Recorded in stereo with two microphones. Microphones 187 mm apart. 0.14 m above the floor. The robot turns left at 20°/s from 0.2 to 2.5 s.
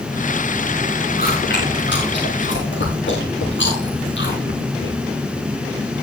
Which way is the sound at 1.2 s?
55° left (ahead or behind).